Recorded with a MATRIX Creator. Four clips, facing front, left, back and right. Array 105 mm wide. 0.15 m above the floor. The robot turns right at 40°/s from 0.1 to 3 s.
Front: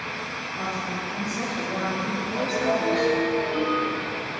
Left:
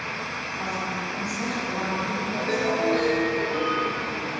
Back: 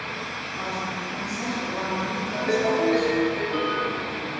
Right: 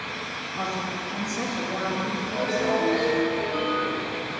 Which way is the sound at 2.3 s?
170° left.